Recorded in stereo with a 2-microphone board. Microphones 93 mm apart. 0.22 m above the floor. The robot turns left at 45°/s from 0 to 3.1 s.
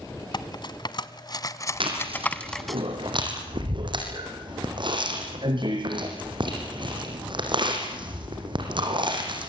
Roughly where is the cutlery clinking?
Left.